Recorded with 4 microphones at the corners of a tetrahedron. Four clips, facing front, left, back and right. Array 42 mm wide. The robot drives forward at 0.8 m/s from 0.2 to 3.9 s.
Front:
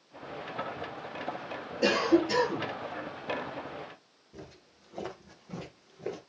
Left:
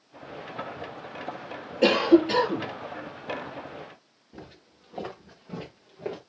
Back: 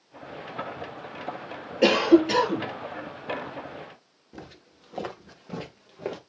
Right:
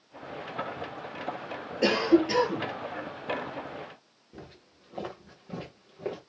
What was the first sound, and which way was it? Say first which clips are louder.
A cough: left 4 dB, back 7 dB; 160° left.